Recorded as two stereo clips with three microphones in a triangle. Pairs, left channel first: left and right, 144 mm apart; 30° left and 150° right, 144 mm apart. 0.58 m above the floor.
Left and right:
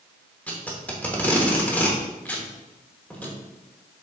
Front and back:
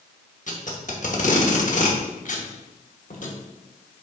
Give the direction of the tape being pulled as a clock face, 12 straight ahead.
12 o'clock.